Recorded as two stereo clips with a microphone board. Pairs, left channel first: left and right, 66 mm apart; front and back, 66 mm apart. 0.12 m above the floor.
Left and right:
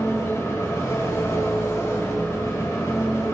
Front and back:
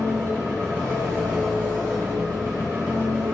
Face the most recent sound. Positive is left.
turn(degrees=135)